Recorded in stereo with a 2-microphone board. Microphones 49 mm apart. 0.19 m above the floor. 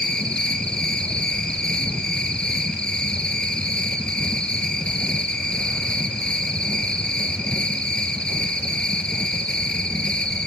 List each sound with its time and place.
0.0 s an insect: 20° left (ahead or behind), 2.5 m